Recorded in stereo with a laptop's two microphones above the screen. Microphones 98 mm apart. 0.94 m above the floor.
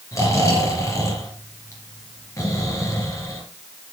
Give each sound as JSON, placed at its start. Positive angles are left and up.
{"t": 0.1, "sound": "snoring", "side_deg": 30, "distance_m": 3.0}